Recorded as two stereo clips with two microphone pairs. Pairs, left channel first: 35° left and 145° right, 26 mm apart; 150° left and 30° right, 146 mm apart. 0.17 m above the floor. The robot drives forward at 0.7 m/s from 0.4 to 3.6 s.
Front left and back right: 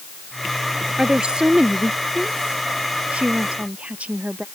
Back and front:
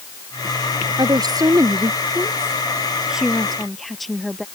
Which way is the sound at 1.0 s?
90° right.